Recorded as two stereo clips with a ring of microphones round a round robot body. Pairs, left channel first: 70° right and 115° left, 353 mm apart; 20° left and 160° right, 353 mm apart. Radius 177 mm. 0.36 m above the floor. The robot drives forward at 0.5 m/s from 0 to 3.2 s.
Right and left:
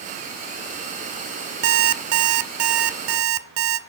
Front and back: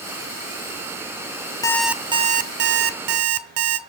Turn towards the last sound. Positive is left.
turn(degrees=160)